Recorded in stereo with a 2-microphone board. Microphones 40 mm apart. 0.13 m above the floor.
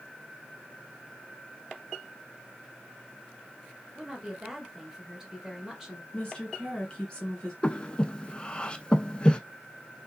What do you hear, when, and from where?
3.9 s a woman speaking: 15° right (ahead or behind), 1.3 m
6.1 s a woman speaking: 25° left (ahead or behind), 1.9 m
7.6 s breathing: 25° left (ahead or behind), 0.5 m